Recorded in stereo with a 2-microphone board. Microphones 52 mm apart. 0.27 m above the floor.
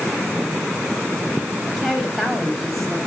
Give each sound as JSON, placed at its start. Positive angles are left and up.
{"t": 1.7, "sound": "a woman speaking", "side_deg": 5, "distance_m": 1.3}